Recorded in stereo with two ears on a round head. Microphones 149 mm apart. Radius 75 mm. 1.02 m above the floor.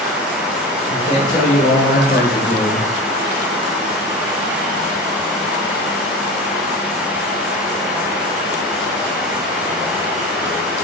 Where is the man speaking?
45° left (ahead or behind), 3 m; by 2.9 s 40° left (ahead or behind), 1.0 m.